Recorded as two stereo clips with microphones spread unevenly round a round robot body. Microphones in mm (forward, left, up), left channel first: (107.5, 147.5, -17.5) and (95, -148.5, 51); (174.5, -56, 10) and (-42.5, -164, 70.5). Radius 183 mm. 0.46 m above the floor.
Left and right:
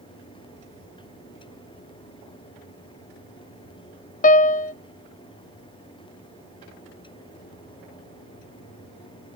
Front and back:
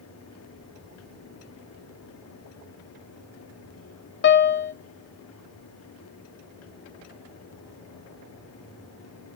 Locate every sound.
4.2 s a piano: 40° left, 0.6 m